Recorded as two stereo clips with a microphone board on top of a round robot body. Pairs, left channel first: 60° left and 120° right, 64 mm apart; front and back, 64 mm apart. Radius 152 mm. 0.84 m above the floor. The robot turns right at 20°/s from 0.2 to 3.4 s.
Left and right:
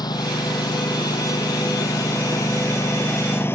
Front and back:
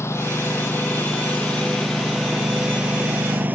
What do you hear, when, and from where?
0.0 s a lawn mower: 50° left; by 3.6 s 115° left